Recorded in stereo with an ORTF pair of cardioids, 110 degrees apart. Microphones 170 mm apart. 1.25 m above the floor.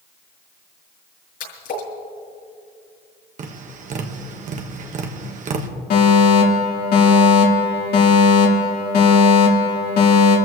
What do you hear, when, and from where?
1.4 s a splash: 65° left, 6.5 m
3.4 s tapping: 50° right, 1.5 m
5.9 s a fire alarm: 65° left, 3.5 m